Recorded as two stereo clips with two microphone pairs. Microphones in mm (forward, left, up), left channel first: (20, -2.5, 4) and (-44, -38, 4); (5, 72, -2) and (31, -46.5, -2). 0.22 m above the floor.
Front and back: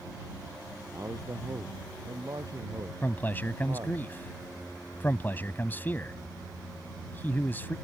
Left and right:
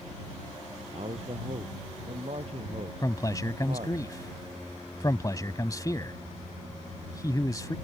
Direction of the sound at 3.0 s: 70° left.